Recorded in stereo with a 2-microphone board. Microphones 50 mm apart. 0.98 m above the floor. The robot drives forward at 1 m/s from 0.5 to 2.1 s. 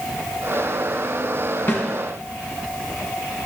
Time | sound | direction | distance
1.7 | a snare drum | 45° left (ahead or behind) | 3 m